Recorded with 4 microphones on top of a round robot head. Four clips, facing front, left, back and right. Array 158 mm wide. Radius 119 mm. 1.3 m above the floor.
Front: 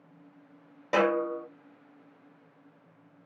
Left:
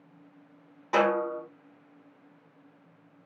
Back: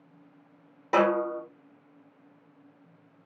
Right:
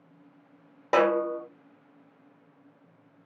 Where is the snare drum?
80° right, 1.5 m.